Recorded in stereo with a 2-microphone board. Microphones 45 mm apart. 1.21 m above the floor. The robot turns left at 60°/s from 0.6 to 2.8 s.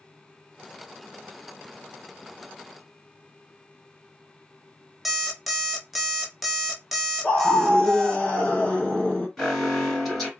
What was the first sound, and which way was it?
An alarm clock, 5° right (ahead or behind).